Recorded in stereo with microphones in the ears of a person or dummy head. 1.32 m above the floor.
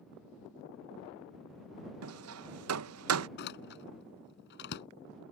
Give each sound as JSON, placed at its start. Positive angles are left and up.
{"t": 2.0, "sound": "hammering", "side_deg": -75}
{"t": 3.4, "sound": "a door slam", "side_deg": 60}